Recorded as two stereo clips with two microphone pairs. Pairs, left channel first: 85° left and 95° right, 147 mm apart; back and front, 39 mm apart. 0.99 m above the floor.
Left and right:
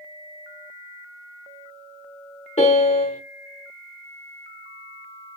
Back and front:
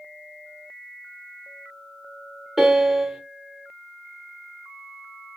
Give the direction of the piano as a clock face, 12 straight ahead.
9 o'clock.